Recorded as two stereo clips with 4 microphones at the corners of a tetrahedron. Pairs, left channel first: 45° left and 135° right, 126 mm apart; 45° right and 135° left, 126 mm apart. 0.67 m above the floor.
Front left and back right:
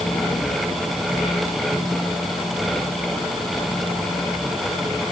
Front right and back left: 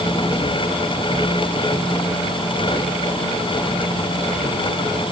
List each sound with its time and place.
Only background noise.